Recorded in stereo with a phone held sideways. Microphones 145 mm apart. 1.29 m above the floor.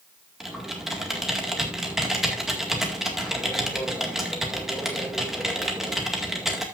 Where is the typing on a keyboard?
5° right (ahead or behind), 2.0 m.